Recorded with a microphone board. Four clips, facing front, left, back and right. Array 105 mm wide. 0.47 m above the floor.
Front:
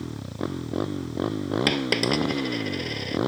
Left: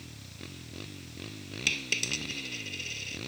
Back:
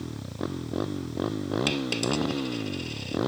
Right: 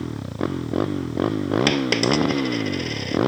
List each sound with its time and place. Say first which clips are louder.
0.0 s a motorcycle: right 22 dB, front 2 dB; 85° right
1.7 s a dropped coin: right 19 dB, front 4 dB; 55° right